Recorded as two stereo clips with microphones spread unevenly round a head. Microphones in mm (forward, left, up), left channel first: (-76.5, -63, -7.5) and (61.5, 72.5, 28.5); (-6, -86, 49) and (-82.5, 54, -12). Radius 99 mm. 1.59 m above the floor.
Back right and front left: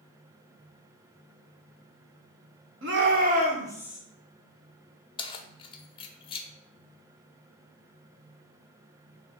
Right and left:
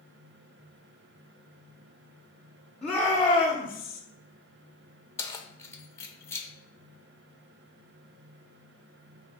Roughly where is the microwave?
No microwave in this recording.